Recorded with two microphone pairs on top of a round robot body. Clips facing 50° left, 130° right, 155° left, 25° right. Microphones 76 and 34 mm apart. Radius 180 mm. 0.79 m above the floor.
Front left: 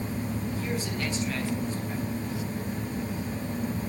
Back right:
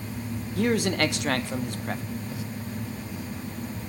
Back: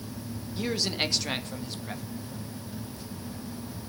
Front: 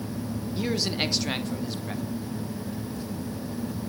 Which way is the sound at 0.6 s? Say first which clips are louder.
Back right 7 dB, front 1 dB; 110° right.